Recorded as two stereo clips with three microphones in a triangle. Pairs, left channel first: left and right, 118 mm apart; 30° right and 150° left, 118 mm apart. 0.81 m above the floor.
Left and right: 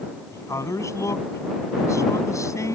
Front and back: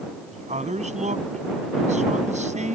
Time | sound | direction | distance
0.3 | a man speaking | 155° left | ?